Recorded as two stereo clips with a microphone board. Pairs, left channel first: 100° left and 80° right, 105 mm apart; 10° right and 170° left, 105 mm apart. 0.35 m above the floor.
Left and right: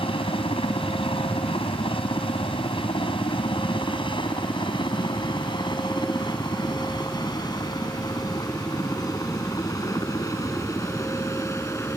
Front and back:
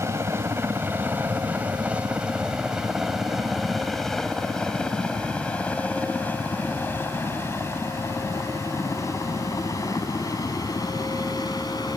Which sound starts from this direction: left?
A helicopter, at 0.0 s.